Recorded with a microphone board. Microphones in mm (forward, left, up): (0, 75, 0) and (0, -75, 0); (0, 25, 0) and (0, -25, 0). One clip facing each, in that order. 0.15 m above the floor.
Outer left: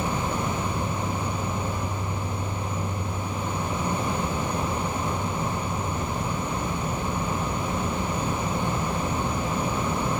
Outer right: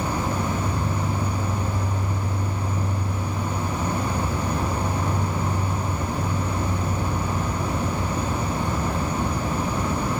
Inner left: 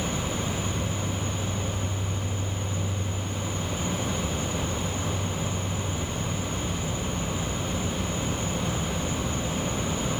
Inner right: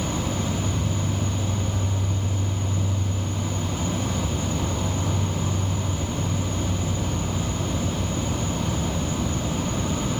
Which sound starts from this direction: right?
An insect, at 0.0 s.